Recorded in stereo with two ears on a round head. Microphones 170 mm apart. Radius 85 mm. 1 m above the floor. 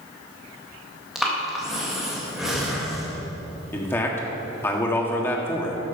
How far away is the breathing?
About 1.8 m.